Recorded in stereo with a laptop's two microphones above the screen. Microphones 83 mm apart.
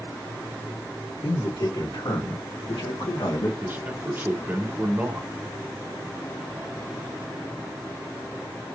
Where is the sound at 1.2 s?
70° left (ahead or behind), 2.5 m.